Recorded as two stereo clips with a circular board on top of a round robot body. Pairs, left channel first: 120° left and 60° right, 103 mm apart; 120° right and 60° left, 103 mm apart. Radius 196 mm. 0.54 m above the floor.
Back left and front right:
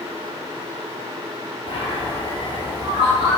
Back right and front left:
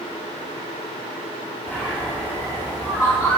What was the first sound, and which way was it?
A bird, 165° left.